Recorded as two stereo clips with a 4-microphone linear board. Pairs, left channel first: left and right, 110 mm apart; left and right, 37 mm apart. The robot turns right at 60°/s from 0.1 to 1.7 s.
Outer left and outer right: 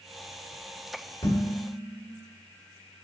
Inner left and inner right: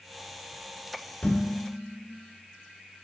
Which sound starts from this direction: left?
Dishes clattering, at 1.2 s.